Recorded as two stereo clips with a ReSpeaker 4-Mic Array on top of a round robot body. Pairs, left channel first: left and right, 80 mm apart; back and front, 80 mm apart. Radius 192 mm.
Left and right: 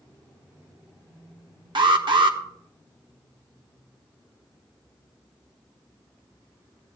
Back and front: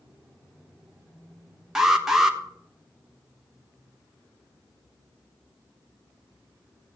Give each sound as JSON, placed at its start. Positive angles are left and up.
{"t": 1.8, "sound": "an alarm", "azimuth_deg": -85, "distance_m": 1.3}